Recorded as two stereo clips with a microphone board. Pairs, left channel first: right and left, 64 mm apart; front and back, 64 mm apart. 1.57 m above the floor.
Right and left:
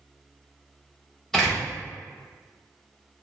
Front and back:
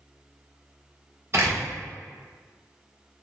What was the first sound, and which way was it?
A door slam, 175° right.